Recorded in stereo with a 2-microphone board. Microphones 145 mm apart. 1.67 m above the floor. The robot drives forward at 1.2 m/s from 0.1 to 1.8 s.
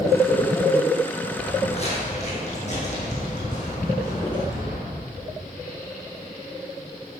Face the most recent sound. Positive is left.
turn(degrees=55)  # may be behind; listen again after turning